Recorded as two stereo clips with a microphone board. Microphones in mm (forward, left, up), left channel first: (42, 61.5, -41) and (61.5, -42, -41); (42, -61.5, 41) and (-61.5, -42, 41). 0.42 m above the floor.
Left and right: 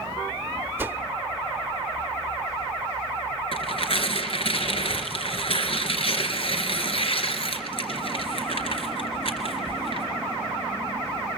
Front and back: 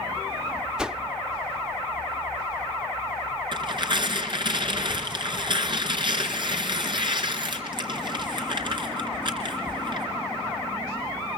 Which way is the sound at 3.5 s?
130° left.